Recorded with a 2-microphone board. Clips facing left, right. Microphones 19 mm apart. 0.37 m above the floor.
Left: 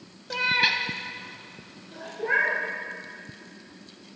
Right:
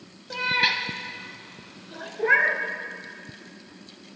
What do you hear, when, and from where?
0.3 s a cat meowing: 15° left (ahead or behind), 0.6 m; by 2.1 s 30° right (ahead or behind), 1.5 m
2.2 s a cat meowing: 35° right (ahead or behind), 1.1 m